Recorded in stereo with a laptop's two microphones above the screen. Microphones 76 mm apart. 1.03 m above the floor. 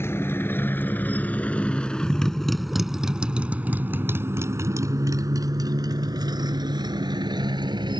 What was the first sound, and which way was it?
A motorcycle, 35° left (ahead or behind).